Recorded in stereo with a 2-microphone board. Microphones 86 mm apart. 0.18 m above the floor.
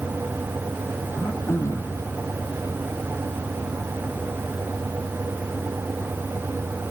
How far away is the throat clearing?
About 2 m.